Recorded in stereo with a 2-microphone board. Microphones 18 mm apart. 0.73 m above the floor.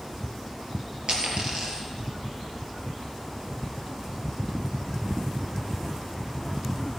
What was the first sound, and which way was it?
A dropped coin, 65° right (ahead or behind).